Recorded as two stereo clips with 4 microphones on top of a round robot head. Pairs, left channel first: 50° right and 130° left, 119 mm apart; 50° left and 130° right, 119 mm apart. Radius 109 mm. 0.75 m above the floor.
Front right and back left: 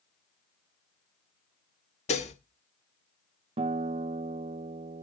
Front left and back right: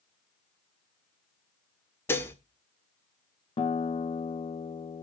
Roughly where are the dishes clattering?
Ahead right.